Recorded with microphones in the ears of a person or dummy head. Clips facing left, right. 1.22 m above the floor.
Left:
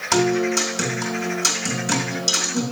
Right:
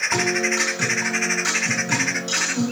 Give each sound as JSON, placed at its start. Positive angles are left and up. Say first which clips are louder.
{"t": 0.1, "sound": "a guitar", "louder": "left 5 dB", "side_deg": 60, "distance_m": 2.5}